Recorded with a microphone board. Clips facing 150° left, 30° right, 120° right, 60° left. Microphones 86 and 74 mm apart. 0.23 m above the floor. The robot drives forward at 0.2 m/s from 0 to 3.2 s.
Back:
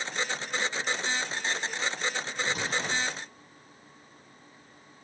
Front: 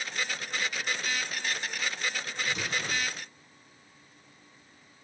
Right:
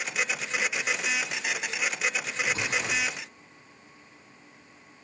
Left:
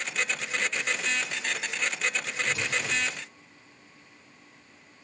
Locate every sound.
2.5 s an explosion: 170° right, 2.5 m